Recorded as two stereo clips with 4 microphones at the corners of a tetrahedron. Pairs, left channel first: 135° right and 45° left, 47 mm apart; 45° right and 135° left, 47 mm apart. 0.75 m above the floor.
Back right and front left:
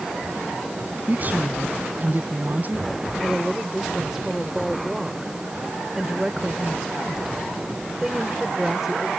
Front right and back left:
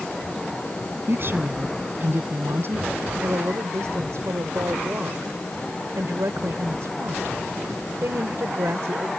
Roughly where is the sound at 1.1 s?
Left.